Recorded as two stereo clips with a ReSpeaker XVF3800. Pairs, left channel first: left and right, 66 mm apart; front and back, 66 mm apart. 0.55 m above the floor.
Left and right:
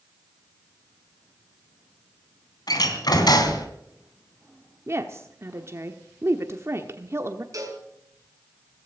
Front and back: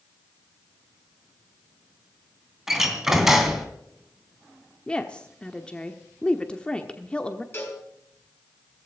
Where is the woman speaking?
70° right, 1.1 m.